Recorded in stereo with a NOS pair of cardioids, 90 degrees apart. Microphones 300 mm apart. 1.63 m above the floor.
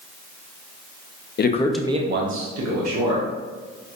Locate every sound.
1.4 s a man speaking: 35° left, 0.7 m; by 3.3 s 65° right, 1.8 m